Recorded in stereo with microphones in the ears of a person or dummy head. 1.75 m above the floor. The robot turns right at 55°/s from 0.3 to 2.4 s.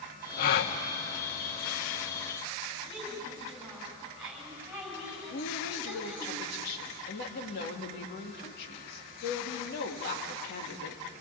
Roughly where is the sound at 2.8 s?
Centre.